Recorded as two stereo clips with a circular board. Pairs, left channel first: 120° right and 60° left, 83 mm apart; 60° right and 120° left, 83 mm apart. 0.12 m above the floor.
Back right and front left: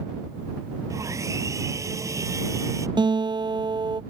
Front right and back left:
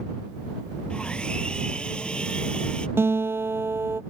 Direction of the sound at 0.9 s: 20° left.